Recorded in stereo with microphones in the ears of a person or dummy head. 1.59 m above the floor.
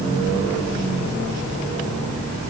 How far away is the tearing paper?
I don't hear tearing paper.